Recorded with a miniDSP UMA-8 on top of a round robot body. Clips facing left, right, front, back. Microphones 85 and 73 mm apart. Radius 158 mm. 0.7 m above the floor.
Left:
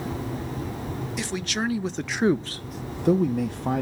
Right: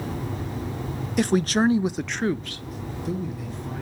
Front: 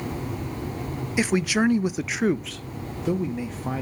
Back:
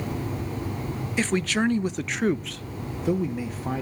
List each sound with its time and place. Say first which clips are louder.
1.2 s a man speaking: right 10 dB, front 2 dB; 80° right, 0.7 m; by 3.8 s 95° left, 1.0 m